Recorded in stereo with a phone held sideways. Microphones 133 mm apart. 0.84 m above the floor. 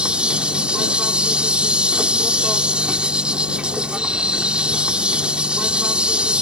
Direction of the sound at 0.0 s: 10° right (ahead or behind).